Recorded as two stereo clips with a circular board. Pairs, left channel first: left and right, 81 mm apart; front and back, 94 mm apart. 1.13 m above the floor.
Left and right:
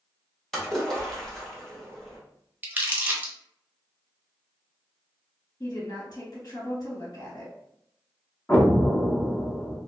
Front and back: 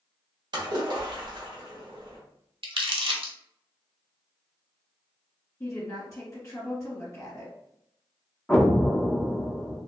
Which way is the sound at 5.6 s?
60° left.